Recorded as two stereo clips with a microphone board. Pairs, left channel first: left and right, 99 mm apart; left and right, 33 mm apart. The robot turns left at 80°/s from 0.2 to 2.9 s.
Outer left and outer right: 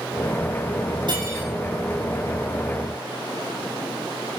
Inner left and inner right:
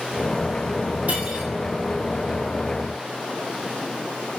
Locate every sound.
1.1 s cutlery clinking: 125° right, 6.5 m; by 1.5 s 160° right, 6.5 m